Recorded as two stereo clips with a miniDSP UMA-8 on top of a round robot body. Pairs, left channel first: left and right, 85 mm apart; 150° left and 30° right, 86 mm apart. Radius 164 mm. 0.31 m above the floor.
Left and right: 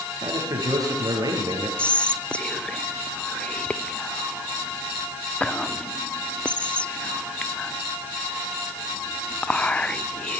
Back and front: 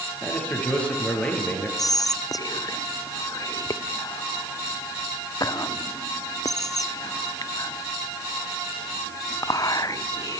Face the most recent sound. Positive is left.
turn(degrees=160)